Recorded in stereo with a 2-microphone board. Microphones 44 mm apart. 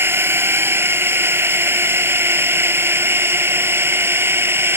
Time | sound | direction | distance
0.0 | a drone | 65° right (ahead or behind) | ?